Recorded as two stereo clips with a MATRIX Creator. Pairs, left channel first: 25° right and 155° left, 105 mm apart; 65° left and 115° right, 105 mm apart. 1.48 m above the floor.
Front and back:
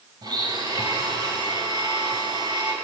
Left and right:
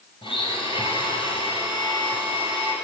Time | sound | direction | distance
0.2 | a blender | 105° left | 6 m